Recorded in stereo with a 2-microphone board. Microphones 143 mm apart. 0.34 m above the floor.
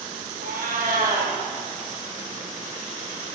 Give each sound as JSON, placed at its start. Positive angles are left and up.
{"t": 0.4, "sound": "a cat meowing", "side_deg": -90, "distance_m": 2.0}